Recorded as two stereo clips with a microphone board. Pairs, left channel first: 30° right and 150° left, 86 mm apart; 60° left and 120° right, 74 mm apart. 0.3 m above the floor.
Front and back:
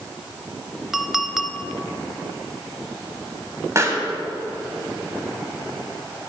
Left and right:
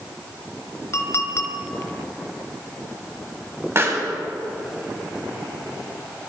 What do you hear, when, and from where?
0.9 s a clink: 70° left, 0.9 m
3.8 s a pop: 165° right, 1.8 m